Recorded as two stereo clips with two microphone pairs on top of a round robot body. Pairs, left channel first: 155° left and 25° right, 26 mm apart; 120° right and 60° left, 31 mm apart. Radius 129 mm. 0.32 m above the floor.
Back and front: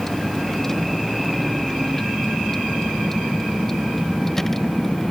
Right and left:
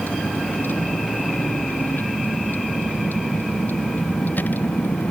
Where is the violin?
No violin in this recording.